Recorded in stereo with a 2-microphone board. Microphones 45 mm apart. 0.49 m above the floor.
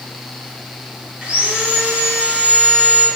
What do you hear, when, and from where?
1.2 s sawing: 25° right (ahead or behind), 0.6 m